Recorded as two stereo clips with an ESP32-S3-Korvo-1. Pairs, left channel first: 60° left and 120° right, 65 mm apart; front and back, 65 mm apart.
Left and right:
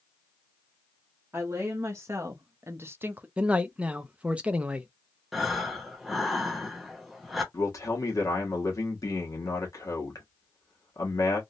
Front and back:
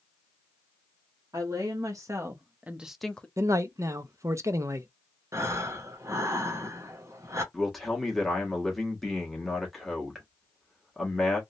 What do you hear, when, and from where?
1.3 s a woman speaking: 170° right, 1.2 m; by 3.3 s 65° right, 0.6 m
3.4 s a man speaking: 175° left, 0.5 m
5.3 s breathing: 150° left, 0.9 m
7.5 s a man speaking: 85° left, 1.5 m